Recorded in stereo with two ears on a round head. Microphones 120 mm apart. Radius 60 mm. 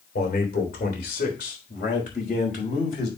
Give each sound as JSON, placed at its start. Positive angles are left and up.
{"t": 0.1, "sound": "a man speaking", "side_deg": 75, "distance_m": 3.0}